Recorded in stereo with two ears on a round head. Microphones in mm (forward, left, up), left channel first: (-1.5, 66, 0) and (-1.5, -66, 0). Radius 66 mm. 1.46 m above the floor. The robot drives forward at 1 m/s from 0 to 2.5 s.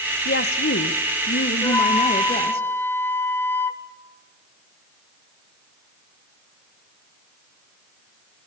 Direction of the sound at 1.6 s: 20° left (ahead or behind).